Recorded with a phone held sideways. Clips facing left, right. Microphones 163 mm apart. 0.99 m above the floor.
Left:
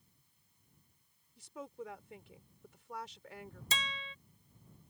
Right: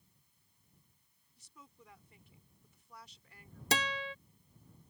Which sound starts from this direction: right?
A guitar, at 3.7 s.